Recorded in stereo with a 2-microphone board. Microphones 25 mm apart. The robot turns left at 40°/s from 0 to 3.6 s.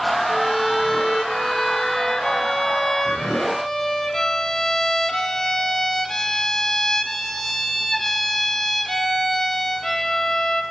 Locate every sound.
0.3 s a violin: 5° left (ahead or behind), 0.7 m; by 10.6 s 15° left (ahead or behind), 0.7 m